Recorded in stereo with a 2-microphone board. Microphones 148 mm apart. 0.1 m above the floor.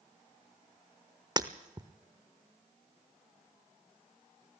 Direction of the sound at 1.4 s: 30° right (ahead or behind).